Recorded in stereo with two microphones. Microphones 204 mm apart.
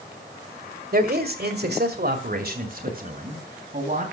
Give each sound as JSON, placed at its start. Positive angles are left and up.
{"t": 0.9, "sound": "a man speaking", "side_deg": -50, "distance_m": 1.5}